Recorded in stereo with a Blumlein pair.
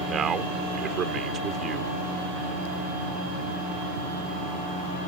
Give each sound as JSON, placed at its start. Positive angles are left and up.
{"t": 0.1, "sound": "a man speaking", "azimuth_deg": -25}